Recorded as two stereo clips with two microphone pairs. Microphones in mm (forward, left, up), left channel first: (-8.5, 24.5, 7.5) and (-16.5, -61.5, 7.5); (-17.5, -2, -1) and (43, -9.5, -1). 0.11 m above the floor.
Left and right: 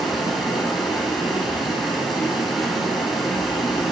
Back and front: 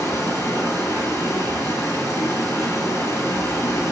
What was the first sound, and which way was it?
Running water, straight behind.